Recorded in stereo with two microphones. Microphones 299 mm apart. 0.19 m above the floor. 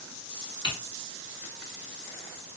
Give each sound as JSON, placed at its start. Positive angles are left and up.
{"t": 0.6, "sound": "typing on a keyboard", "side_deg": 40, "distance_m": 1.8}